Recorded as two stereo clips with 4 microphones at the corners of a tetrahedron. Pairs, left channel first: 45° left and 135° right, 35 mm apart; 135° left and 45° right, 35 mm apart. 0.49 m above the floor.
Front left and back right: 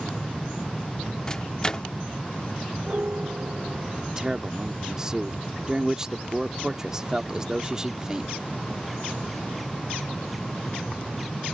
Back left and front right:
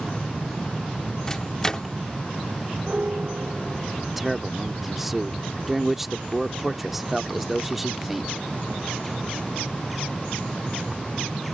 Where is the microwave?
95° left.